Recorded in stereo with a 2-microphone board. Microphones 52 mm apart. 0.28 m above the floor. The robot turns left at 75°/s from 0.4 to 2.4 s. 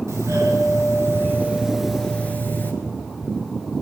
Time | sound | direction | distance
0.1 | a doorbell | 70° right | 5.5 m